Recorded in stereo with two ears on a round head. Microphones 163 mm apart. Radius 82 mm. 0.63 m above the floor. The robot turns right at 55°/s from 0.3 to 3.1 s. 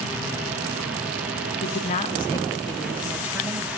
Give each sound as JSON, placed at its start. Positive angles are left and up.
{"t": 1.6, "sound": "a woman speaking", "azimuth_deg": 110, "distance_m": 0.8}